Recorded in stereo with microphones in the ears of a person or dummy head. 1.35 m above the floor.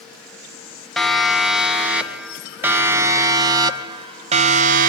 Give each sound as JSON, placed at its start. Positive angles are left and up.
{"t": 1.0, "sound": "a siren", "side_deg": 0, "distance_m": 2.5}